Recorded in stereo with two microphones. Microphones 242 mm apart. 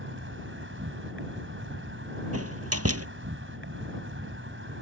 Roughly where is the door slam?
Right.